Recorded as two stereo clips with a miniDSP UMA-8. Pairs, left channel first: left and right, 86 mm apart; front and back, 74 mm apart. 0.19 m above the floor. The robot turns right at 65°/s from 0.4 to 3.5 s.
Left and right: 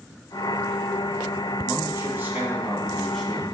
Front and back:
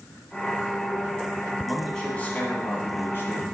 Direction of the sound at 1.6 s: 90° right.